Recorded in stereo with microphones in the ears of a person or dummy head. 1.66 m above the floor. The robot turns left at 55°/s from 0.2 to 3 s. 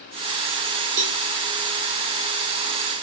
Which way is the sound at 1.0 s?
45° right (ahead or behind).